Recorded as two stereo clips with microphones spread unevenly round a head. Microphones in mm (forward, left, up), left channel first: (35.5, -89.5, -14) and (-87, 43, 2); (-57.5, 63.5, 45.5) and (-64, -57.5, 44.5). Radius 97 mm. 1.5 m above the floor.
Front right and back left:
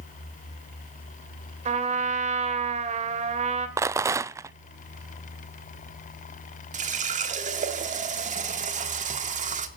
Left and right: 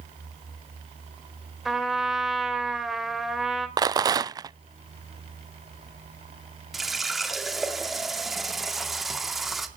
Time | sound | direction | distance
1.6 | a trumpet | straight behind | 2.5 m
3.8 | a rattle | 150° right | 0.5 m
6.7 | a running tap | straight behind | 2 m